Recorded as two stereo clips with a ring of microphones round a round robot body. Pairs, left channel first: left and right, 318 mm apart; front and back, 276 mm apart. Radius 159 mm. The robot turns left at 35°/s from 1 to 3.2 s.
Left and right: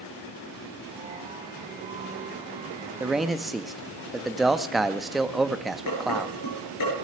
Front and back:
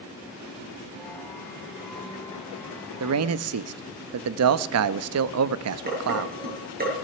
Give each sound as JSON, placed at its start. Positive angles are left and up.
{"t": 3.0, "sound": "a man speaking", "azimuth_deg": -170, "distance_m": 0.6}
{"t": 5.9, "sound": "dishes clattering", "azimuth_deg": 120, "distance_m": 7.5}